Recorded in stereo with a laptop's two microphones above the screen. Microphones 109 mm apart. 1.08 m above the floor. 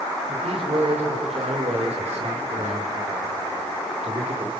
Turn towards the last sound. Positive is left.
turn(degrees=-75)  # may be behind; listen again after turning